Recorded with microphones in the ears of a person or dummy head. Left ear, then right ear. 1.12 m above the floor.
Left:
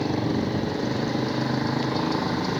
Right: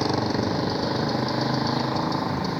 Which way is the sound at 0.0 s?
50° right (ahead or behind).